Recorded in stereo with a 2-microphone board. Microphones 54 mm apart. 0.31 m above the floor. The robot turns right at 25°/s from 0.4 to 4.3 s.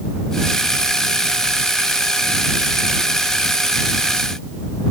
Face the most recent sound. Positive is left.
No sound to turn to.